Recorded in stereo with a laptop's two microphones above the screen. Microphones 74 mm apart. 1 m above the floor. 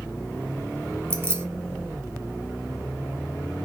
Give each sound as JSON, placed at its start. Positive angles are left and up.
{"t": 1.1, "sound": "keys jangling", "side_deg": -30, "distance_m": 0.6}